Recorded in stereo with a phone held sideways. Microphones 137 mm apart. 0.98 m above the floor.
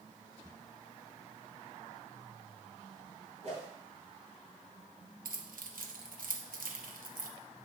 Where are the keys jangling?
85° right, 0.8 m.